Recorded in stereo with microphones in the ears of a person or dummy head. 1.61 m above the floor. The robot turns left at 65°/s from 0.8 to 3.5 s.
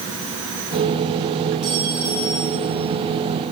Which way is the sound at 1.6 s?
Straight behind.